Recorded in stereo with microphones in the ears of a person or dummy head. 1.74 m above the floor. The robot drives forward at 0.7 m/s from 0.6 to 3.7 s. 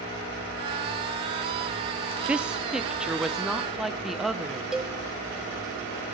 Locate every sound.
2.3 s a woman speaking: 10° right (ahead or behind), 0.5 m; by 4.6 s 5° right (ahead or behind), 1.4 m
4.7 s a cowbell: 5° right (ahead or behind), 1.7 m